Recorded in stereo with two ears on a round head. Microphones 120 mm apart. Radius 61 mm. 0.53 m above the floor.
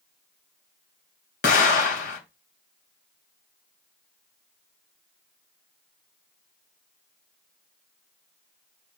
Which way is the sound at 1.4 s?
70° left (ahead or behind).